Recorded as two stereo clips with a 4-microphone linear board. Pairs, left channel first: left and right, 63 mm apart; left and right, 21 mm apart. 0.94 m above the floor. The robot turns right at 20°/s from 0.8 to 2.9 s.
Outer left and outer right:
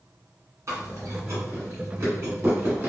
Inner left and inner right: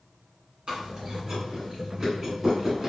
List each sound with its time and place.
0.7 s chewing: 50° right (ahead or behind), 1.3 m; by 2.9 s 35° right (ahead or behind), 1.3 m